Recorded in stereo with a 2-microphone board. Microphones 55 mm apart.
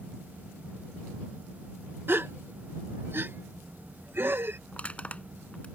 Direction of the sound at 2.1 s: 40° right (ahead or behind).